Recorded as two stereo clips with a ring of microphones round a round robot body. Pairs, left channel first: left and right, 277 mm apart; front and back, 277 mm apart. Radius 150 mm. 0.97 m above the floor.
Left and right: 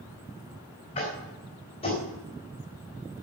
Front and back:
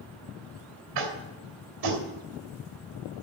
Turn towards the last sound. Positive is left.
turn(degrees=165)